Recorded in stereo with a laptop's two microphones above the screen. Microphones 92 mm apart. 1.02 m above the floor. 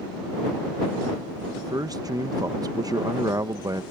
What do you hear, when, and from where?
1.6 s a man speaking: 45° right (ahead or behind)